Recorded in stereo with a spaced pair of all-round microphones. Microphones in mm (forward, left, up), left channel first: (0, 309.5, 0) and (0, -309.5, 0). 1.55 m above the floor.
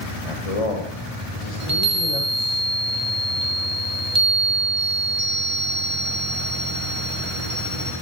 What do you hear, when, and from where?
0.2 s a man speaking: 55° left (ahead or behind), 1.1 m
1.6 s a chime: 55° right (ahead or behind), 1.5 m